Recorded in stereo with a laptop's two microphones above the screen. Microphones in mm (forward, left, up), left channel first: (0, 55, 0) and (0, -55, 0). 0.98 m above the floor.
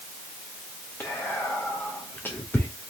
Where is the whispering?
20° left (ahead or behind), 0.5 m.